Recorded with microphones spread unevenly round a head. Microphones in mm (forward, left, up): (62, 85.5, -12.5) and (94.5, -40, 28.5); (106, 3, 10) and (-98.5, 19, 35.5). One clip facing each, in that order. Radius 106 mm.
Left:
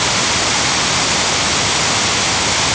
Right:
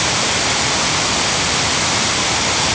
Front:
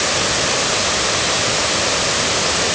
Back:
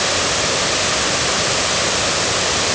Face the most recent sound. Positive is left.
No sound to turn to.